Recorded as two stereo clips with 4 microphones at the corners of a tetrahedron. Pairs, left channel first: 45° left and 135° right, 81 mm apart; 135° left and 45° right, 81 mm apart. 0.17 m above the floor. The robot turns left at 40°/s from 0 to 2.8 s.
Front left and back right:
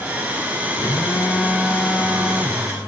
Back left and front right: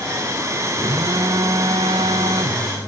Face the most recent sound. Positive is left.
turn(degrees=-80)